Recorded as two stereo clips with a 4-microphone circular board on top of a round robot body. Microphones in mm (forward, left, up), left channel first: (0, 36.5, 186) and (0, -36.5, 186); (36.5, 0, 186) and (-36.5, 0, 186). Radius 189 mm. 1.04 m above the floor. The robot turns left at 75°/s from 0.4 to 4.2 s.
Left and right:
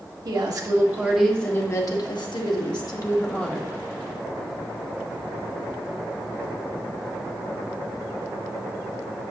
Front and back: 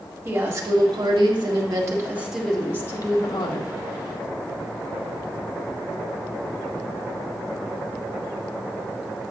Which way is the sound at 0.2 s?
120° right.